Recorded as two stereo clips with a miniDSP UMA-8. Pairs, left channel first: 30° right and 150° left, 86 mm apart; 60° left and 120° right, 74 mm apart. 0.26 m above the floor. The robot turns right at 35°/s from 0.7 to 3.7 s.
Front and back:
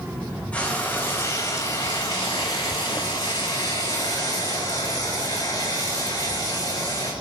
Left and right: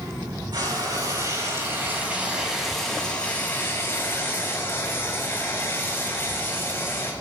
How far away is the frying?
About 5 m.